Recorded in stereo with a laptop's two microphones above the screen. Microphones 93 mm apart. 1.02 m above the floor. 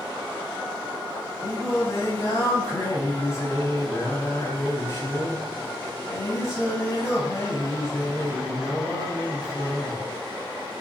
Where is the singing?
35° left (ahead or behind), 3 m.